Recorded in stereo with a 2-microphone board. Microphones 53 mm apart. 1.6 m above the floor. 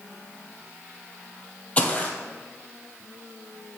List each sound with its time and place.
1.8 s footsteps: 25° left (ahead or behind), 2 m